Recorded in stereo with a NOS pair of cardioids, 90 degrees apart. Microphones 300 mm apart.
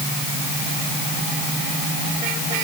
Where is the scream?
No scream in this recording.